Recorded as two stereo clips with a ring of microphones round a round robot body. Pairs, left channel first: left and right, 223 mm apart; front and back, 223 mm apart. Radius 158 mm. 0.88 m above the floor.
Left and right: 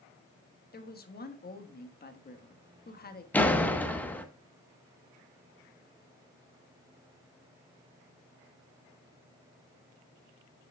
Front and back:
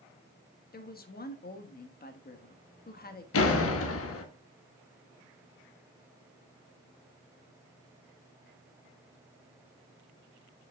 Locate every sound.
0.7 s a woman speaking: 45° left, 1.3 m
3.3 s a door slam: 5° left, 1.1 m